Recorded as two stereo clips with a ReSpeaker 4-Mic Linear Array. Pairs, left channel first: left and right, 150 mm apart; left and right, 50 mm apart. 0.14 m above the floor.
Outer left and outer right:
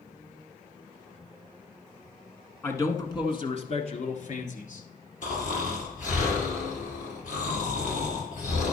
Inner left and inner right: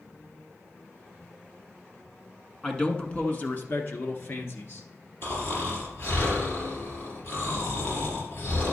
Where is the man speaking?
15° left (ahead or behind), 1.1 m; by 4.8 s 60° left (ahead or behind), 2.0 m.